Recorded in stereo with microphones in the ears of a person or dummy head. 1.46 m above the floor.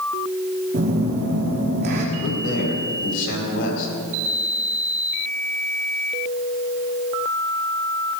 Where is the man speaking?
65° left (ahead or behind), 5.5 m.